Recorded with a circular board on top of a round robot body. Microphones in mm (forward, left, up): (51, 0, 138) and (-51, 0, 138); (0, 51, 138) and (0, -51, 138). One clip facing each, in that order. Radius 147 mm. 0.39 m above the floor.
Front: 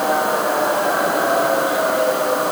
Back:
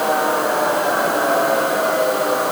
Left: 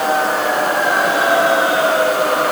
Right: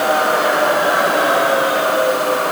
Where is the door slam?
I don't hear a door slam.